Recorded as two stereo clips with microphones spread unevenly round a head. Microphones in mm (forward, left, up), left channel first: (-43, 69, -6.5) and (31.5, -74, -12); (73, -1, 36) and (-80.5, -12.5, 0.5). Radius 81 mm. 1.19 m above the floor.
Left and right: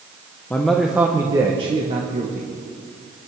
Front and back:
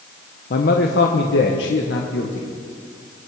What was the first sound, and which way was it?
A man speaking, 40° left.